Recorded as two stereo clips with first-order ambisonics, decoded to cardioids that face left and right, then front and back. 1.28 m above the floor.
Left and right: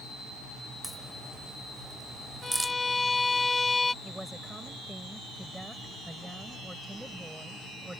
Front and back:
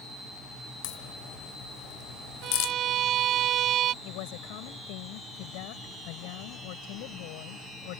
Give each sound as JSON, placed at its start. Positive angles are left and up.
{"t": 0.8, "sound": "a crack", "azimuth_deg": -5}
{"t": 2.4, "sound": "a violin", "azimuth_deg": 165}
{"t": 4.0, "sound": "a woman speaking", "azimuth_deg": -5}